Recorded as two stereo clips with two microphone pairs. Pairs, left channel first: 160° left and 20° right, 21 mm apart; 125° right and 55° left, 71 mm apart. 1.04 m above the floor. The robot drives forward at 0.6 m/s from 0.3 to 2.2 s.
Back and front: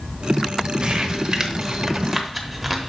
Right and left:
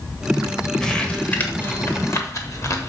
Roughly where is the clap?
No clap in this recording.